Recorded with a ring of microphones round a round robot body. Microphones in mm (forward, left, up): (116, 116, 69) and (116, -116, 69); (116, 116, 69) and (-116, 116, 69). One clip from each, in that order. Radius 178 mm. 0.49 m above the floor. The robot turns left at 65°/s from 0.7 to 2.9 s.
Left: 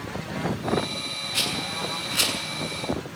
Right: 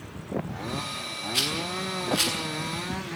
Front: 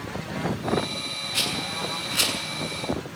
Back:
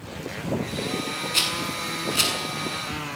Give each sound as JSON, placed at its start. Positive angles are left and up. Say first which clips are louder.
{"t": 1.3, "sound": "a rattle", "louder": "even, back 2 dB", "azimuth_deg": 160, "distance_m": 7.0}